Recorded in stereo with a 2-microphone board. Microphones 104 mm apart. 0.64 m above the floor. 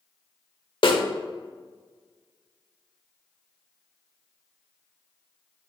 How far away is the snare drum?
About 1.1 m.